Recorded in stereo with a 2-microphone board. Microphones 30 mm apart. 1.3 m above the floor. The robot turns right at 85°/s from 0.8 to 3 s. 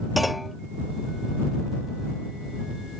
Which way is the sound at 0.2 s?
5° right (ahead or behind).